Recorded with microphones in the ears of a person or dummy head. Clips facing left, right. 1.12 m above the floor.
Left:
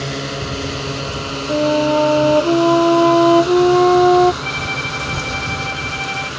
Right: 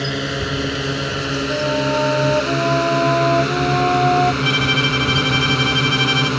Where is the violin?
80° right.